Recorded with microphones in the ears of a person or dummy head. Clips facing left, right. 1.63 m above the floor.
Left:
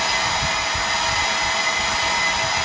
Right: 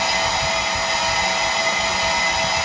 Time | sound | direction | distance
0.0 | a fan | 20° right (ahead or behind) | 3.5 m